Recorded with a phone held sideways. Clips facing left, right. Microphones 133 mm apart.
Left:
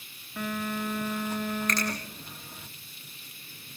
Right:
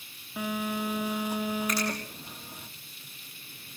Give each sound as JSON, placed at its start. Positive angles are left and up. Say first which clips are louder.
{"t": 0.4, "sound": "a phone buzzing", "louder": "right 1 dB", "side_deg": -10, "distance_m": 2.0}
{"t": 1.7, "sound": "a finger snap", "louder": "even", "side_deg": -10, "distance_m": 9.5}